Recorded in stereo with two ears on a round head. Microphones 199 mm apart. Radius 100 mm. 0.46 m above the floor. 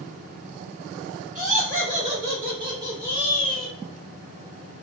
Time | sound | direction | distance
1.4 | laughter | 35° right (ahead or behind) | 1.8 m